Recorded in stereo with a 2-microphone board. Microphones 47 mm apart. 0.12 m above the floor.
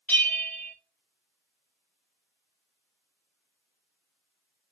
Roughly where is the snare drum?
I don't hear a snare drum.